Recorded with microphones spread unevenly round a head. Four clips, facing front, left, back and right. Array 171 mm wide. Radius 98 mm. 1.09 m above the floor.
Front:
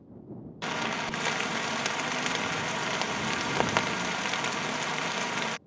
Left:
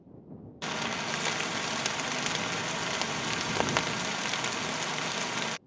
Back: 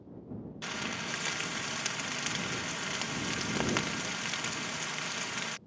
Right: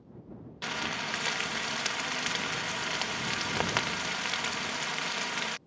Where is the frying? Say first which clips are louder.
Left 2 dB, front 8 dB; 5° left.